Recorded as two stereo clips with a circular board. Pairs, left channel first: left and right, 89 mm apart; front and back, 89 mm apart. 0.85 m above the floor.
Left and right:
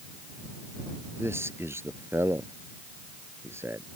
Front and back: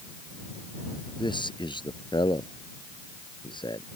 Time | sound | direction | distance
1.2 | a man speaking | 30° right | ?